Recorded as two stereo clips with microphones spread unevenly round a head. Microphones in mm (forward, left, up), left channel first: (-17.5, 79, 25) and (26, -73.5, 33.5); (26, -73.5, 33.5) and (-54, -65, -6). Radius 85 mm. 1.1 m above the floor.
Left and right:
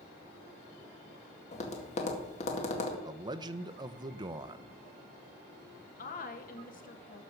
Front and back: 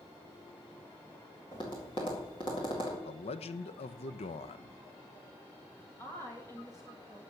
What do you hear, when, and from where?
1.5 s tapping: 60° left, 2.0 m
3.0 s a man speaking: 10° right, 0.7 m
6.0 s a woman speaking: 70° left, 1.6 m